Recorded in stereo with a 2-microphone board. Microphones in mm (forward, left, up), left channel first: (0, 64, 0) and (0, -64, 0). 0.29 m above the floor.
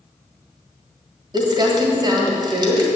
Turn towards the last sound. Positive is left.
turn(degrees=-35)  # may be behind; listen again after turning